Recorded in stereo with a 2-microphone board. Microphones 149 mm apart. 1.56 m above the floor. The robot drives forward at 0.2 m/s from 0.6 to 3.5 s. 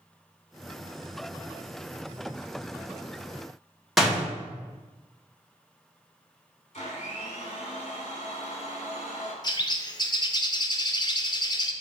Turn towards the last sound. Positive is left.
turn(degrees=30)  # may be behind; listen again after turning